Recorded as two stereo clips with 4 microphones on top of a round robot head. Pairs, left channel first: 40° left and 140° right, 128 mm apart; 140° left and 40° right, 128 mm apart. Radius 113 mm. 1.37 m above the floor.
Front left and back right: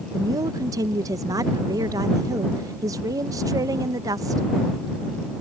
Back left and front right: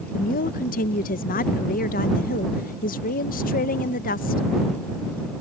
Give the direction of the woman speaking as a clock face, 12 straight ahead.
7 o'clock.